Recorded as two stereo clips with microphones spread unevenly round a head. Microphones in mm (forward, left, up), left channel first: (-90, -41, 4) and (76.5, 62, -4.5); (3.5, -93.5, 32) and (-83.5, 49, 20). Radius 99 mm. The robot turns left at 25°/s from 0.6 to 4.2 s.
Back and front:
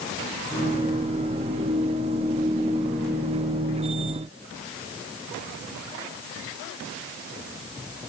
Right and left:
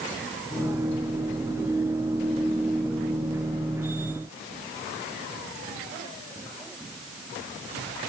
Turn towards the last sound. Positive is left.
No sound to turn to.